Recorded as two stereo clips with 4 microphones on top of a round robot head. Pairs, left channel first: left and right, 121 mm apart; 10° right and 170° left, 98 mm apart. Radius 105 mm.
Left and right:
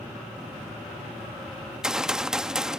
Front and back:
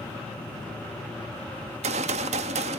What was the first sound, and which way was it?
A gunshot, 175° right.